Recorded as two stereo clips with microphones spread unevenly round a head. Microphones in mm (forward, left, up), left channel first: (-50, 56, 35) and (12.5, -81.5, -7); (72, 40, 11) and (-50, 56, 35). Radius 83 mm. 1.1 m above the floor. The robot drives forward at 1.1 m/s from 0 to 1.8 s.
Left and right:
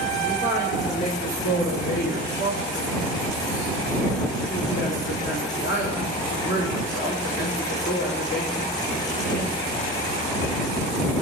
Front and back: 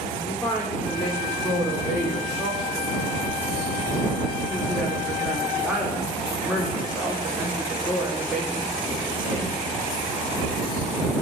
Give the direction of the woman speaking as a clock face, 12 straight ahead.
10 o'clock.